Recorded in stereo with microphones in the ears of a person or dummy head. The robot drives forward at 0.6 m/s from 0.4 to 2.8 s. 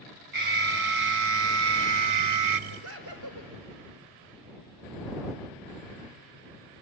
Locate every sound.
0.3 s an alarm: 50° right (ahead or behind), 1.3 m; by 2.6 s 60° right (ahead or behind), 1.1 m
2.7 s laughter: 75° right (ahead or behind), 5 m